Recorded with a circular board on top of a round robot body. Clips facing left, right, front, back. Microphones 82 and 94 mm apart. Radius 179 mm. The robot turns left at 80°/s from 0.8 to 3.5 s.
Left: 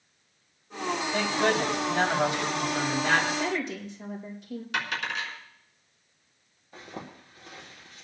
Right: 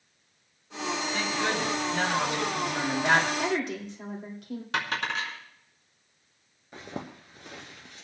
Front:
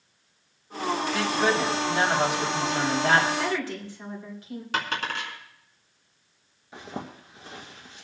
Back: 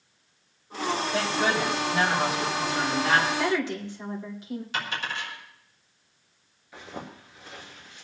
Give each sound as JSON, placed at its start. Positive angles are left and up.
{"t": 1.1, "sound": "a woman speaking", "azimuth_deg": 125, "distance_m": 4.5}
{"t": 3.4, "sound": "a woman speaking", "azimuth_deg": -105, "distance_m": 3.0}
{"t": 4.7, "sound": "a dropped coin", "azimuth_deg": -40, "distance_m": 3.0}
{"t": 6.7, "sound": "a zipper", "azimuth_deg": -65, "distance_m": 2.0}